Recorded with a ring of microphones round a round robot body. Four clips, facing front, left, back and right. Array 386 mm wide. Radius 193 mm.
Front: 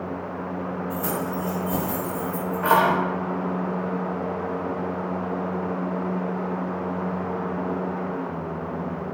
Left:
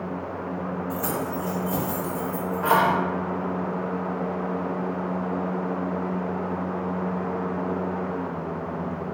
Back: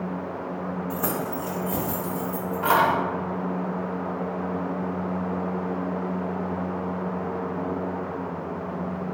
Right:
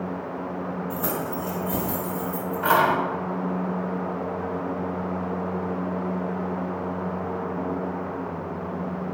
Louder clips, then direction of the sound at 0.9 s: Left 1 dB, front 1 dB; 165° left.